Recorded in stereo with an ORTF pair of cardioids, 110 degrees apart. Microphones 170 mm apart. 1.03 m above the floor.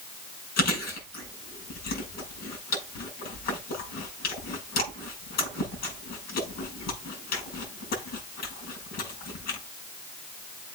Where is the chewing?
65° left, 6.5 m.